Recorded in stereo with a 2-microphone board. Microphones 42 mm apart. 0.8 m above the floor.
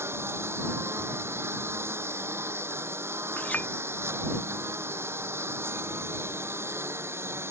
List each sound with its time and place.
0.0 s a lawn mower: 85° right
3.4 s a clink: 40° left (ahead or behind)